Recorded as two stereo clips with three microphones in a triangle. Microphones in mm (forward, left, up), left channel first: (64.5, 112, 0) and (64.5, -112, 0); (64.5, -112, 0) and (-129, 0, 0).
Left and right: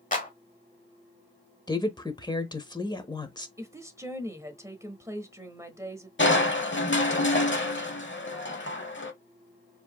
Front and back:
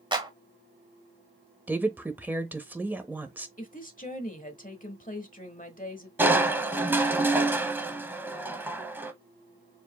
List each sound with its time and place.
0.1 s a clap: 100° left, 1.2 m
1.7 s a woman speaking: 85° left, 0.9 m
3.6 s a woman speaking: 20° right, 1.0 m
6.2 s crushing: 70° left, 0.8 m